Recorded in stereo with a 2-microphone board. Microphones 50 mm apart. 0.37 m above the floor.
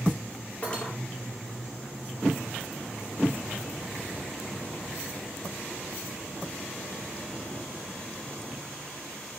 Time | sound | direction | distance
0.6 | cutlery clinking | 20° left (ahead or behind) | 5 m